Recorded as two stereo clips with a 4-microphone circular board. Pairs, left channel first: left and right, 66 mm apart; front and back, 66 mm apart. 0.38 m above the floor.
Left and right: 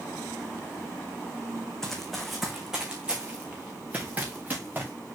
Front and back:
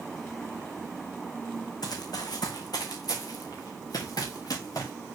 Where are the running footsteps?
10° left, 1.7 m; by 4.9 s 25° right, 3.5 m.